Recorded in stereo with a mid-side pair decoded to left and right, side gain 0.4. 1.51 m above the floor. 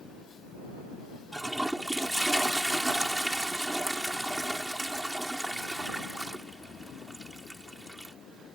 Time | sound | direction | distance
1.3 | a toilet flushing | 10° right | ?